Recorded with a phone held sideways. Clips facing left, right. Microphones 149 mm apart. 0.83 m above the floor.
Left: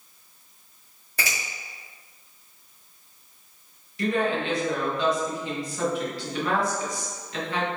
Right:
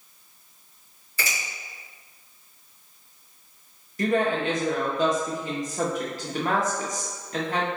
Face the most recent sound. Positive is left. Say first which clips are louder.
# right 2 dB
turn(degrees=-45)  # may be behind; listen again after turning